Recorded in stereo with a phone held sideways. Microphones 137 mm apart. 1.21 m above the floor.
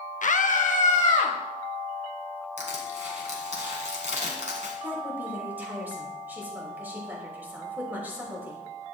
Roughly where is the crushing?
Right.